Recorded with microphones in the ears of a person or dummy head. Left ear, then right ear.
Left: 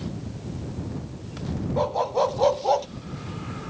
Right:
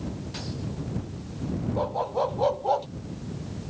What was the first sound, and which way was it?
A dog barking, 25° left (ahead or behind).